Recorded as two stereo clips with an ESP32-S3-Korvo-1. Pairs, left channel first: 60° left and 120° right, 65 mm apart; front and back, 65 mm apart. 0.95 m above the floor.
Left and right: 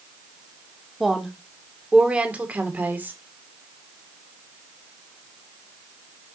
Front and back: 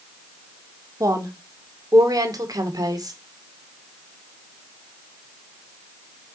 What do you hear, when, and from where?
1.0 s a woman speaking: 155° left, 2 m; by 3.2 s straight behind, 2.5 m